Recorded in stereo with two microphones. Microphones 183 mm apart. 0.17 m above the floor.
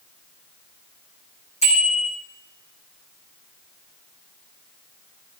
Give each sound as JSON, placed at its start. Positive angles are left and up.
{"t": 1.6, "sound": "a bicycle bell", "side_deg": 40, "distance_m": 6.5}